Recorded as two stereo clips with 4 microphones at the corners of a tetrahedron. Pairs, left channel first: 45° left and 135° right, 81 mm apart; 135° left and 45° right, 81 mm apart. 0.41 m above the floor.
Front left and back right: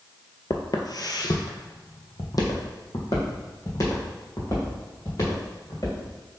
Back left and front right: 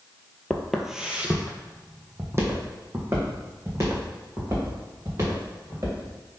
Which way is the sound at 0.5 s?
55° left.